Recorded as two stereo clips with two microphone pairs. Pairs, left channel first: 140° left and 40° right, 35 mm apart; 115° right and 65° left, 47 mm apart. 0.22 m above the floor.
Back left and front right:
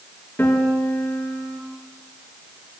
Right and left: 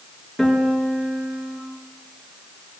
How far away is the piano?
About 3.5 m.